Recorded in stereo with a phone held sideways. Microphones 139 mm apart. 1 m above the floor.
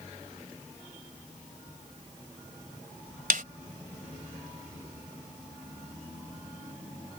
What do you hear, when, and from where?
3.3 s a snare drum: 85° right